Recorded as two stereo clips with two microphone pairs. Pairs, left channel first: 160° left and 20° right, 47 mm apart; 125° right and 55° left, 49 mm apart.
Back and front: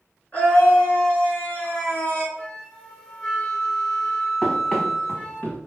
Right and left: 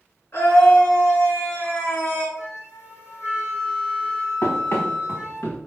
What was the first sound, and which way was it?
A scream, 145° right.